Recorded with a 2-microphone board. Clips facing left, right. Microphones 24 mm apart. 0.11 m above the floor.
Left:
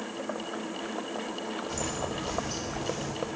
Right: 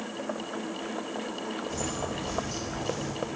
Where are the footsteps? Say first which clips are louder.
Even; 45° left (ahead or behind), 2 m; by 3.1 s 30° left (ahead or behind), 3.5 m.